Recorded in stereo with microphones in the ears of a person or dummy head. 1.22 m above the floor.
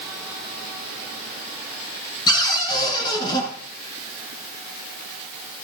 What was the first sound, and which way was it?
A cupboard door, 25° left (ahead or behind).